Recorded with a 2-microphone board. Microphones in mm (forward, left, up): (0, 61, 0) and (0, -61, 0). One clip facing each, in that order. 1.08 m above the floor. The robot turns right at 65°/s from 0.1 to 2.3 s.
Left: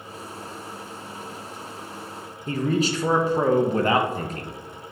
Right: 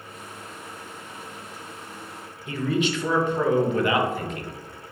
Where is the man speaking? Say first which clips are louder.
Left 1 dB; 35° left (ahead or behind), 0.6 m.